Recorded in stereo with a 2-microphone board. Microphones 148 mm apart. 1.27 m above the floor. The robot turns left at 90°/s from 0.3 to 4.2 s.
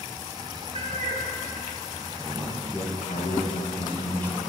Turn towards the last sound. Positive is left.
turn(degrees=15)